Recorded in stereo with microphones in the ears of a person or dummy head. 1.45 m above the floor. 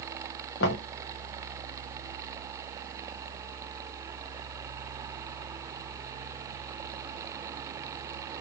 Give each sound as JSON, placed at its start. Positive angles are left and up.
{"t": 0.6, "sound": "knocking", "side_deg": 65, "distance_m": 0.7}